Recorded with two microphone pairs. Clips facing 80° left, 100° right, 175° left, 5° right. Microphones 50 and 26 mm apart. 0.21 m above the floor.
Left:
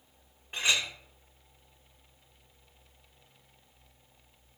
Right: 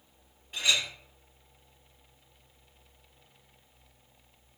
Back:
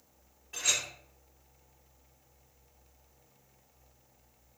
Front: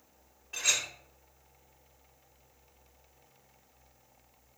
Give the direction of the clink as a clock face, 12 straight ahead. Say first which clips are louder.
Even, front 1 dB; 9 o'clock.